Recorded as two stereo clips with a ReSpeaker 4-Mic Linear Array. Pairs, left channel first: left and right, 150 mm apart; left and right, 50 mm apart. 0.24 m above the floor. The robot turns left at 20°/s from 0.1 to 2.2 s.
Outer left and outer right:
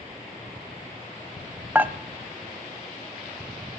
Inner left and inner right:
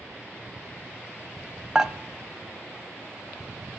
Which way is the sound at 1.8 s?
15° right (ahead or behind).